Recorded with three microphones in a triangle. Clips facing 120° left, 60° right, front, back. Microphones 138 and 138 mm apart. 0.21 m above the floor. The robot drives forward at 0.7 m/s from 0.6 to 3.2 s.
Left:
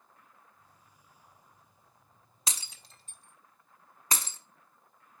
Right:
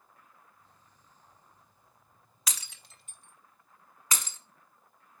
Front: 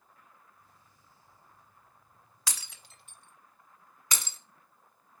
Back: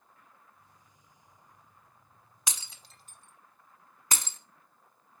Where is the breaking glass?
130° left, 0.7 m; by 4.4 s 160° left, 1.0 m.